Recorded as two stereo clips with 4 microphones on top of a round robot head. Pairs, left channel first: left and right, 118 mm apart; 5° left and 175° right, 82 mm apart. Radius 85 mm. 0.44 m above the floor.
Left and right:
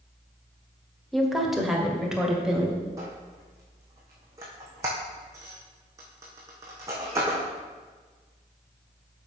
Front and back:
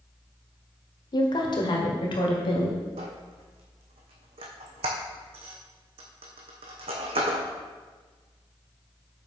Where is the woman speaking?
Straight ahead, 1.6 m; by 2.8 s 5° right, 2.5 m.